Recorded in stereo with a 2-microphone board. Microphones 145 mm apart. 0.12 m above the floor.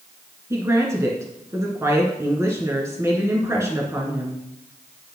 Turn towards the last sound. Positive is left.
turn(degrees=-20)  # may be behind; listen again after turning